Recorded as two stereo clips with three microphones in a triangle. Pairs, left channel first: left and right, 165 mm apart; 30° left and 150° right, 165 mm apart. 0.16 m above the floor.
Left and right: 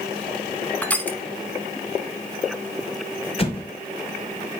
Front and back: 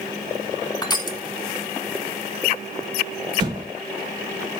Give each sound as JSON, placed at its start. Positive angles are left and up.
{"t": 0.8, "sound": "crushing", "azimuth_deg": 20, "distance_m": 0.9}
{"t": 3.4, "sound": "an explosion", "azimuth_deg": 145, "distance_m": 1.4}